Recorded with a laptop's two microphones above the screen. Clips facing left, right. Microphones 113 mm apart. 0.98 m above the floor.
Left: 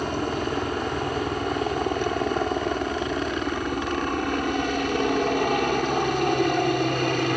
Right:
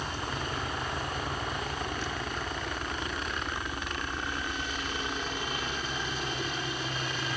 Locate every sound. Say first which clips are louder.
0.0 s a helicopter: left 9 dB; 60° left (ahead or behind); by 7.4 s 65° left (ahead or behind)